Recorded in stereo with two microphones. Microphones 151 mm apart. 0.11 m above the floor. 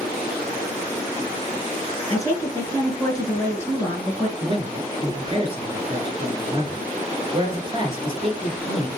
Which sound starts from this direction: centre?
A woman speaking, at 2.1 s.